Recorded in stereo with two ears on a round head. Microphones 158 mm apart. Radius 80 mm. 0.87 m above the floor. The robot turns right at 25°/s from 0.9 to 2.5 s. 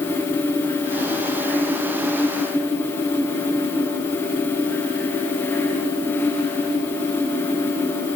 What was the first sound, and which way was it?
Only background noise.